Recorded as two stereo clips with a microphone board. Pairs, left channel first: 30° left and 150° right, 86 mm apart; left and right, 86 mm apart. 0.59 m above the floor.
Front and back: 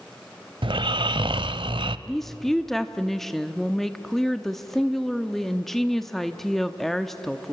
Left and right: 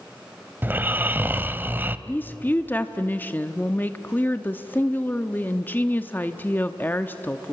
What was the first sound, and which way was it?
Snoring, 155° right.